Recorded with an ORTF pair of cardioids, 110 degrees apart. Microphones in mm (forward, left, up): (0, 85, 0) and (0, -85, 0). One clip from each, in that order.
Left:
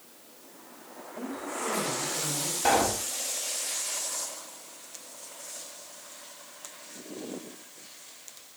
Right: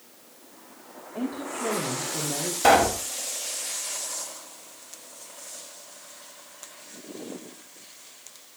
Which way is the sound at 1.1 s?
70° right.